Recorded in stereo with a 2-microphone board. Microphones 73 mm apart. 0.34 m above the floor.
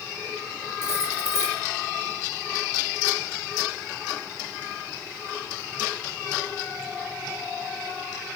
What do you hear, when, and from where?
0.8 s cutlery clinking: 35° left (ahead or behind), 3.5 m